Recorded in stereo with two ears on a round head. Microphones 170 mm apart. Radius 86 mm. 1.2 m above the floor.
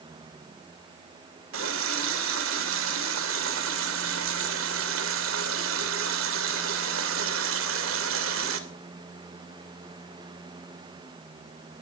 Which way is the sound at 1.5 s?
75° right (ahead or behind).